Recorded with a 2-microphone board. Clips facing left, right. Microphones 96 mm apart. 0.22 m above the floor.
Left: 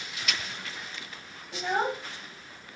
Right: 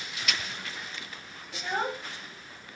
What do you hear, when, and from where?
1.5 s a child speaking: 20° left (ahead or behind), 0.5 m